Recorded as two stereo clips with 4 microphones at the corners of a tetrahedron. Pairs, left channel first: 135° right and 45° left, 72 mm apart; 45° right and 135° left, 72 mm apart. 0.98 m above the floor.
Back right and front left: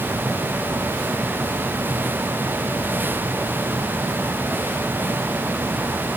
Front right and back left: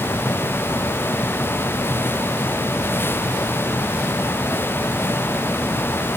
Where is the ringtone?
I don't hear a ringtone.